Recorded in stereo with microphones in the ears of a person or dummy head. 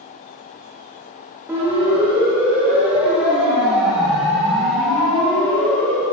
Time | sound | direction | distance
1.5 | a siren | 10° right (ahead or behind) | 5.5 m